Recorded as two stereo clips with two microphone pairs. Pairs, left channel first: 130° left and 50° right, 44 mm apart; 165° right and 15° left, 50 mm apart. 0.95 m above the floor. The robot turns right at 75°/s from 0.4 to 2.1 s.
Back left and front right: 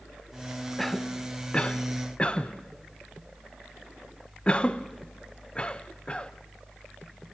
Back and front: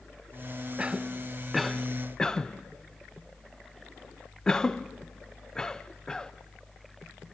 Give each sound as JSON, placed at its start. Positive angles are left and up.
{"t": 0.8, "sound": "a cough", "azimuth_deg": 45, "distance_m": 0.7}